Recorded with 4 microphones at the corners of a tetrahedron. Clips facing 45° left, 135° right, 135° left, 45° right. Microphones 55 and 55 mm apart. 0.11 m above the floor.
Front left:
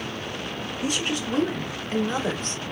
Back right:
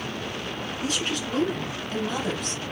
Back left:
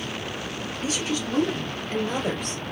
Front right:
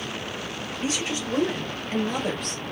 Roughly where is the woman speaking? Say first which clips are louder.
Front left 2 dB, back left 1 dB; ahead right.